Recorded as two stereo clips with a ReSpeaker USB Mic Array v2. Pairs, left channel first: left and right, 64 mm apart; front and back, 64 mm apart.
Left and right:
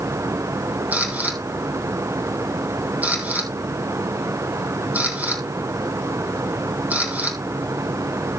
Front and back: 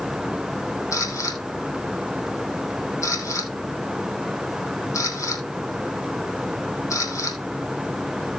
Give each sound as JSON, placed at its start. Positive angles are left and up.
{"t": 0.9, "sound": "a camera shutter", "azimuth_deg": -30, "distance_m": 2.5}